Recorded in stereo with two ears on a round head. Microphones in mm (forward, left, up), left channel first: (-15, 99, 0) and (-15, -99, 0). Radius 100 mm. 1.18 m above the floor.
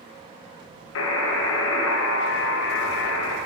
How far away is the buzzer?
About 1.1 m.